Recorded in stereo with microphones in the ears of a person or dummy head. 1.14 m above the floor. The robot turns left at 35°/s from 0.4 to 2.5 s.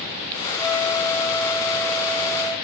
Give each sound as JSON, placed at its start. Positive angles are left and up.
{"t": 0.6, "sound": "a flute", "azimuth_deg": -75, "distance_m": 1.6}